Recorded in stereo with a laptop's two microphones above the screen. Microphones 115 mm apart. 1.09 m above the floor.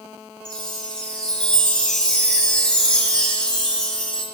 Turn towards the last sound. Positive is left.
turn(degrees=10)  # may be behind; listen again after turning